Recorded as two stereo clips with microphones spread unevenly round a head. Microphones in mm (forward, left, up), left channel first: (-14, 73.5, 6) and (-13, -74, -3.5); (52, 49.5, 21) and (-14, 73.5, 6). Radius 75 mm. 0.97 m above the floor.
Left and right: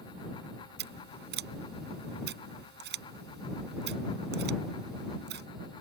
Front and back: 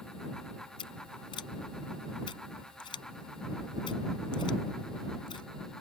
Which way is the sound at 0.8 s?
65° right.